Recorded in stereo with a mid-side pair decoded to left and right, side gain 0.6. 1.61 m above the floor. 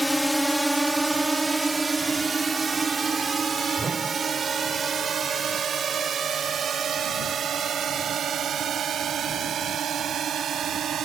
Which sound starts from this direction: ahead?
A drone, at 0.0 s.